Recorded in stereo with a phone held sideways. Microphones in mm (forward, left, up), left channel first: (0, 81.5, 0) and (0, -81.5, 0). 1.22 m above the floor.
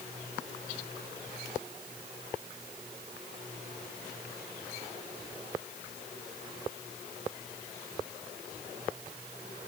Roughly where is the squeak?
I don't hear a squeak.